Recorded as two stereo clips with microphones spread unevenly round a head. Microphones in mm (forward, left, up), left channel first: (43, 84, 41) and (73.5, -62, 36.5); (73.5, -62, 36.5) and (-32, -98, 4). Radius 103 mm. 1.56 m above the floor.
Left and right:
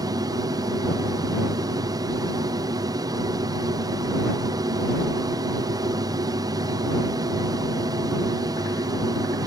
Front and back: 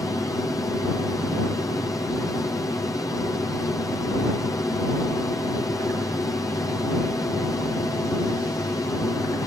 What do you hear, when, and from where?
0.0 s an aircraft: 40° right